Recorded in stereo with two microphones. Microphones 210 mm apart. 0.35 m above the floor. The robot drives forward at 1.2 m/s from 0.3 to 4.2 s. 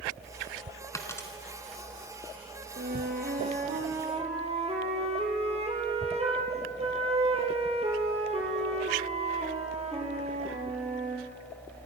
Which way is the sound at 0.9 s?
15° left (ahead or behind).